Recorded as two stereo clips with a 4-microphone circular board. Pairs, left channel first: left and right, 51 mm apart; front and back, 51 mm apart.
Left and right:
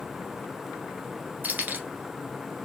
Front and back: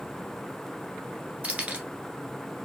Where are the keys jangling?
130° right, 1.5 m.